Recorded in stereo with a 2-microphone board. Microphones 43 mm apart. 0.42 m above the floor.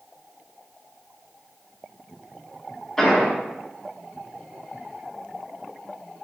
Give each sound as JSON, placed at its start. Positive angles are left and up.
{"t": 3.0, "sound": "an explosion", "side_deg": 10, "distance_m": 1.8}